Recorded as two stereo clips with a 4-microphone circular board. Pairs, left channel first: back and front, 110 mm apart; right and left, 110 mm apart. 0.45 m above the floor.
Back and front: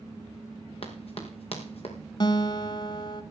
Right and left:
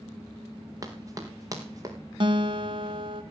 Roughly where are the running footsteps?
Behind left.